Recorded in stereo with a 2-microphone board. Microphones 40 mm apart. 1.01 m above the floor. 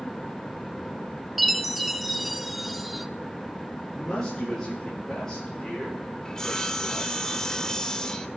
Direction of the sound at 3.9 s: 15° left (ahead or behind).